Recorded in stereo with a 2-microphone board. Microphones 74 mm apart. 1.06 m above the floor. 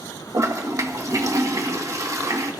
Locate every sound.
0.3 s a toilet flushing: 45° right (ahead or behind), 1.5 m